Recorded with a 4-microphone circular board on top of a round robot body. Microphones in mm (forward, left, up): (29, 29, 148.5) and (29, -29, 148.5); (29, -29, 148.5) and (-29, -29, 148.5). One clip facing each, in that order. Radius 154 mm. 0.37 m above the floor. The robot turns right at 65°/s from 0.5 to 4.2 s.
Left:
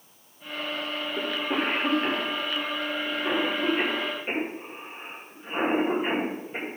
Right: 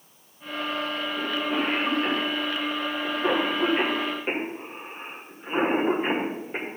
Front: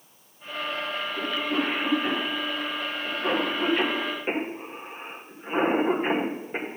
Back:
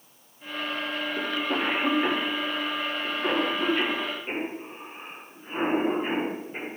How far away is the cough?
About 2 m.